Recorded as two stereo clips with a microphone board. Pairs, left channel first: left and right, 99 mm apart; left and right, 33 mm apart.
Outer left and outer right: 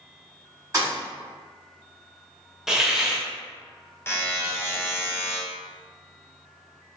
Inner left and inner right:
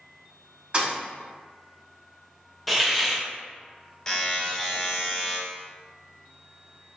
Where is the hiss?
5° right (ahead or behind), 0.5 m.